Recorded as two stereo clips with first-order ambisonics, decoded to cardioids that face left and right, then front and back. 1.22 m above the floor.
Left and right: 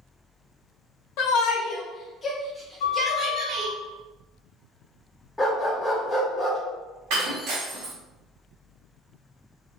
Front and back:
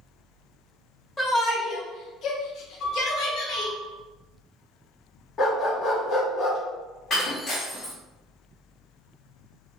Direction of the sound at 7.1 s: 65° right.